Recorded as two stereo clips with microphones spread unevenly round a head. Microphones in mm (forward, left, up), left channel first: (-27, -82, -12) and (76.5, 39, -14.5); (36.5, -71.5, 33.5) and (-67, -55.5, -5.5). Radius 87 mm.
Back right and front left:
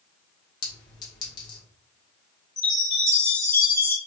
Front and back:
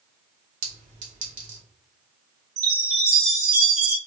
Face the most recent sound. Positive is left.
turn(degrees=160)